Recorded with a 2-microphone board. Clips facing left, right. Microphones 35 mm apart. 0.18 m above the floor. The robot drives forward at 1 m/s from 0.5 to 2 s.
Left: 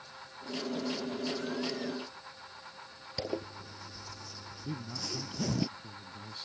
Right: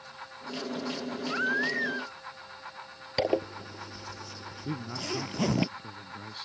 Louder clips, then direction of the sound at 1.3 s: Right 7 dB; 85° right.